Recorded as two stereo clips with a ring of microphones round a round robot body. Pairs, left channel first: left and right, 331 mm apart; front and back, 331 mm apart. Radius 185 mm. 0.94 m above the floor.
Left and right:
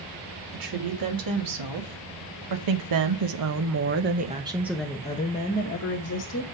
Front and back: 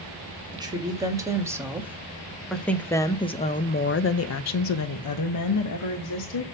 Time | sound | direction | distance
0.5 | a woman speaking | 105° right | 2 m